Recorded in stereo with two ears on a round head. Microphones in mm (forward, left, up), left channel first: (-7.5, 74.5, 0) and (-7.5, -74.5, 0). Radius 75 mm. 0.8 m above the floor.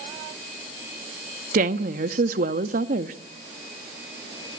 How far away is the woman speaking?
About 1.3 m.